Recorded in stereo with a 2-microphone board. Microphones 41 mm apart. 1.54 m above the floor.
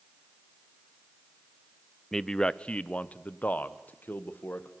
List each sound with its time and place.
2.1 s a man speaking: 10° left (ahead or behind), 0.6 m; by 4.7 s 50° left (ahead or behind), 1.9 m